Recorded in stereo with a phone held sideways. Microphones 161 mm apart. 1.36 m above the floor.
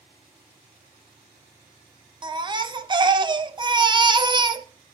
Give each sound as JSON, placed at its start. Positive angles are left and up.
{"t": 2.2, "sound": "a baby crying", "side_deg": -30, "distance_m": 0.6}